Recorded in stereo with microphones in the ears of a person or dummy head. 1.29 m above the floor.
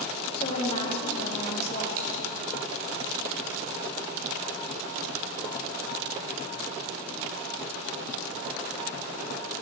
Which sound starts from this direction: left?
A woman speaking, at 0.4 s.